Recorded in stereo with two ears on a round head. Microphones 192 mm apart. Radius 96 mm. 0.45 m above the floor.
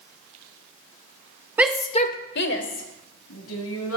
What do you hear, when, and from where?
1.6 s a shout: 10° right (ahead or behind), 0.8 m; by 4.0 s 75° left (ahead or behind), 3.5 m